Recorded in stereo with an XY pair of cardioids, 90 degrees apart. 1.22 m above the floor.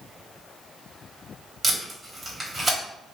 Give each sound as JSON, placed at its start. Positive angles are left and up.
{"t": 1.6, "sound": "tape being pulled", "azimuth_deg": -40, "distance_m": 1.4}